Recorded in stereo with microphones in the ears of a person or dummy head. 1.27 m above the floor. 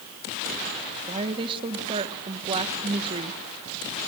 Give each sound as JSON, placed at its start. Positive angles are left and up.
{"t": 1.1, "sound": "a woman speaking", "side_deg": -30, "distance_m": 1.4}